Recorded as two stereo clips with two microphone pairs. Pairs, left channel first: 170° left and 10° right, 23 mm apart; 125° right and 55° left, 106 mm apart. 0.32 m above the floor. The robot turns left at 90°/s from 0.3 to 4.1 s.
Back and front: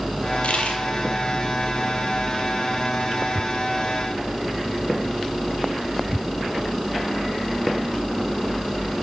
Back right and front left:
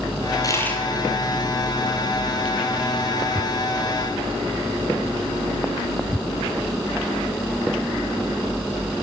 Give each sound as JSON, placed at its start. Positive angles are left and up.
{"t": 0.4, "sound": "a dropped coin", "azimuth_deg": -175, "distance_m": 1.1}